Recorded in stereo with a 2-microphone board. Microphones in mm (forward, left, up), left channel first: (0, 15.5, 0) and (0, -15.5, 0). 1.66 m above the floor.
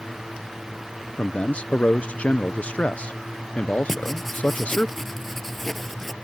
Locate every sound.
1.2 s a man speaking: 45° left (ahead or behind)
3.9 s writing: 10° left (ahead or behind)